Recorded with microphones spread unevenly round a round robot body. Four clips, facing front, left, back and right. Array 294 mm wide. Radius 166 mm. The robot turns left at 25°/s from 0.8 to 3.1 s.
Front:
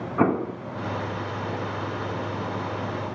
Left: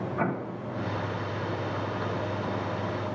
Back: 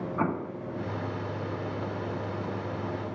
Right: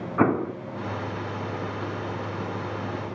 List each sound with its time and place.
0.2 s an explosion: 45° right, 0.9 m